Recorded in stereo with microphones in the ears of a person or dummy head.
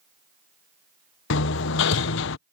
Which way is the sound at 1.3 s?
65° left (ahead or behind).